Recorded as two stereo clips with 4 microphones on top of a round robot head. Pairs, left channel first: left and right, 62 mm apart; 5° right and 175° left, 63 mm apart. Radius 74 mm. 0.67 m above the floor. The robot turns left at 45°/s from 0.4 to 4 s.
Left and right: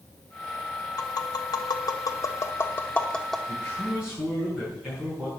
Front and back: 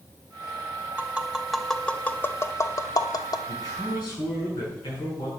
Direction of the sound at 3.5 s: 15° left.